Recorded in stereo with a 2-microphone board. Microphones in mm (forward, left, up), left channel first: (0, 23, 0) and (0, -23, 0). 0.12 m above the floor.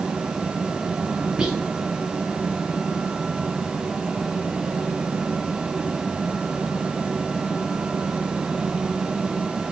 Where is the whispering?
15° right (ahead or behind), 1.9 m.